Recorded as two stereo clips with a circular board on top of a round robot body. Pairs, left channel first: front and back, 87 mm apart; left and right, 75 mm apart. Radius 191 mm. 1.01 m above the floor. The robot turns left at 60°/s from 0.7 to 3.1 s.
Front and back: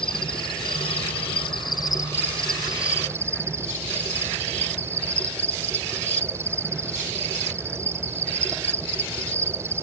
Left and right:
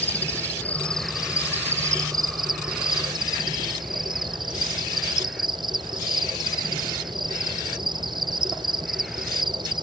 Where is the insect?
25° left; by 9.8 s 120° right.